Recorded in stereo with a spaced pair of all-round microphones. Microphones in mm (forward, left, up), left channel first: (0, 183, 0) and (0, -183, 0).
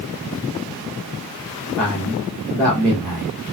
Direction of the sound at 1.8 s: 5° left (ahead or behind).